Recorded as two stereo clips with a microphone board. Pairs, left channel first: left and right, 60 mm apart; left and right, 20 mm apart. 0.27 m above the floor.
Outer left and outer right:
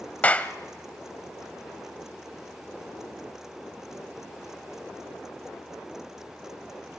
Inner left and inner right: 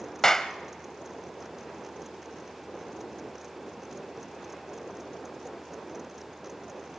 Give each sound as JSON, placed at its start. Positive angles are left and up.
{"t": 0.2, "sound": "a clap", "side_deg": 25, "distance_m": 0.9}